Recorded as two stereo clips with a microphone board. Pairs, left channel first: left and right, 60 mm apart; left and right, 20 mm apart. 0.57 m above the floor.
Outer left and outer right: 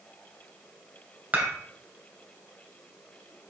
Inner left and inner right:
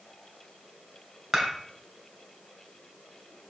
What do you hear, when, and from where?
1.3 s dishes clattering: 25° right (ahead or behind), 2 m